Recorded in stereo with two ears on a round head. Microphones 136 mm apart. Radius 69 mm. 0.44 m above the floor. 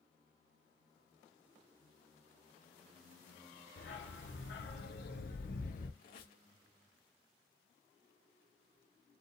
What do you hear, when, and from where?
3.8 s a dog barking: 70° left (ahead or behind), 1.4 m; by 5.9 s 60° left (ahead or behind), 1.6 m
6.0 s a squeak: 65° left (ahead or behind), 1.9 m